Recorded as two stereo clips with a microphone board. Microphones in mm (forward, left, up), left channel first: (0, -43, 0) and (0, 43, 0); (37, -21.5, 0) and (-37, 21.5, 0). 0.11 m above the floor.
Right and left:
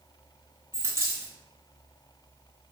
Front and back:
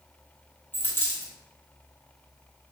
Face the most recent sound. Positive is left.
turn(degrees=35)